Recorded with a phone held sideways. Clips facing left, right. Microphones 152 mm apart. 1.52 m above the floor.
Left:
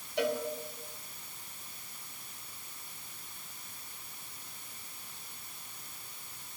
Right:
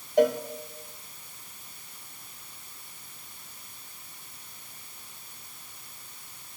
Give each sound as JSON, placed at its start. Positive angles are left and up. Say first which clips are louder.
{"t": 0.2, "sound": "a cowbell", "louder": "right 9 dB", "side_deg": -45, "distance_m": 0.7}